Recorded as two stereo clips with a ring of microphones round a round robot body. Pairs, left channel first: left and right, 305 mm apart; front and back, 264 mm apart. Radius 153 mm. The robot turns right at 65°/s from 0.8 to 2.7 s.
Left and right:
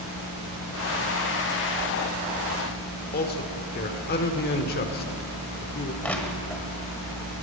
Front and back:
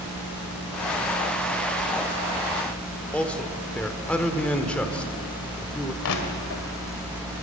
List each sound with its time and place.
3.1 s a man speaking: 80° left, 1.3 m
6.0 s crushing: 5° left, 1.7 m